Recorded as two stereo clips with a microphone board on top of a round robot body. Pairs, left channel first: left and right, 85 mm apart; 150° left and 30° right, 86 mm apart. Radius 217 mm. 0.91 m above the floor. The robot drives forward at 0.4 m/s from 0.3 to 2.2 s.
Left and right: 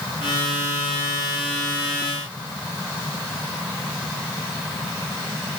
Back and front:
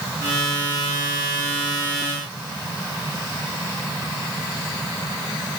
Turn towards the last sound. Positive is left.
No sound to turn to.